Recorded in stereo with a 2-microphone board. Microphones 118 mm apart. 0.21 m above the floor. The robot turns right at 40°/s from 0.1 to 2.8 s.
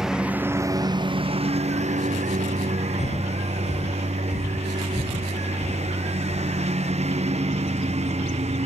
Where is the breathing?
85° left.